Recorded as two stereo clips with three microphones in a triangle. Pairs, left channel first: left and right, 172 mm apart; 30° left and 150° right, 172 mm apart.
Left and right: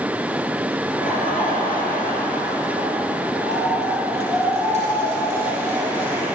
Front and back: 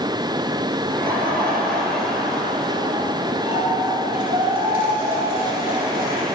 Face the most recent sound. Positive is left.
turn(degrees=135)